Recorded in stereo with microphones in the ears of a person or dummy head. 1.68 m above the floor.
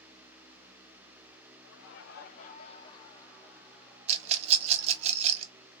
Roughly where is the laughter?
Left.